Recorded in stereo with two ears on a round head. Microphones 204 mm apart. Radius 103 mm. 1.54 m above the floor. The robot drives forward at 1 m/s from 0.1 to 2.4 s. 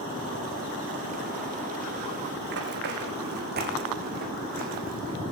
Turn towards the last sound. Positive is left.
turn(degrees=-40)  # may be behind; listen again after turning